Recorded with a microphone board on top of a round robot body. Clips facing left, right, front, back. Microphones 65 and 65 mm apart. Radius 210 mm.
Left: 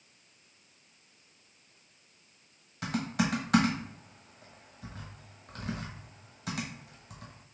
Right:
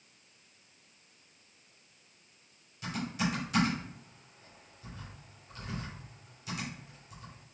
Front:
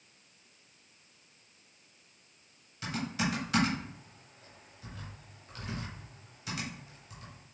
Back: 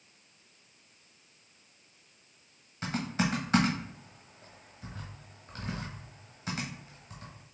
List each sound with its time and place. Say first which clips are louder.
2.8 s typing on a keyboard: left 3 dB, back 2 dB; 120° left, 0.9 m